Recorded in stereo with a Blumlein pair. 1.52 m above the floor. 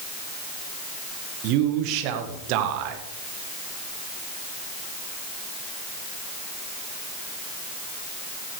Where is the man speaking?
40° right, 1.6 m.